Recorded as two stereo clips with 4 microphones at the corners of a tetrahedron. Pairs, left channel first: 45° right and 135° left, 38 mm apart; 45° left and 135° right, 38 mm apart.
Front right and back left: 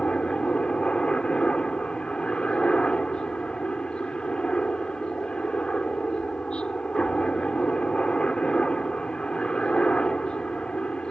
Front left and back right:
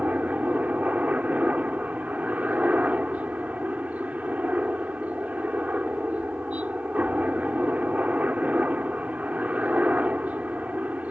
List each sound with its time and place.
0.0 s a helicopter: 100° right